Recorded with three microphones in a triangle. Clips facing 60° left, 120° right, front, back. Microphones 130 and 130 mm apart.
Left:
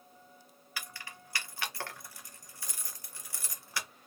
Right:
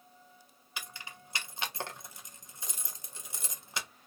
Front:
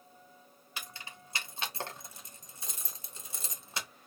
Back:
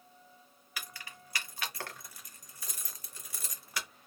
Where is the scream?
I don't hear a scream.